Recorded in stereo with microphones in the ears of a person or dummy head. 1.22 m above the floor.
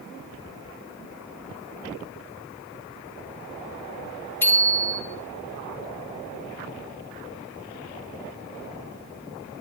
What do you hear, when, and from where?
4.4 s a bicycle bell: 15° left (ahead or behind), 2.5 m